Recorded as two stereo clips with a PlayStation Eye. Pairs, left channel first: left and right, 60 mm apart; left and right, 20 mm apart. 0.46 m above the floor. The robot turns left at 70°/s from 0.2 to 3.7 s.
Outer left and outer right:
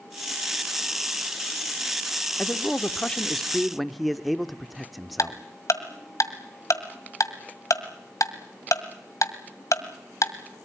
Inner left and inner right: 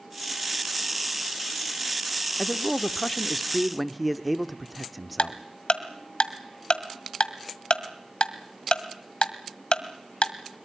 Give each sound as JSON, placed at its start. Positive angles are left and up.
{"t": 2.4, "sound": "a man speaking", "side_deg": 20, "distance_m": 0.7}
{"t": 5.2, "sound": "ticking", "side_deg": 60, "distance_m": 1.6}